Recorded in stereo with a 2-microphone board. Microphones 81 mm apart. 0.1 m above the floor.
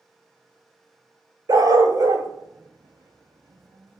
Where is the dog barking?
50° right (ahead or behind), 0.5 m.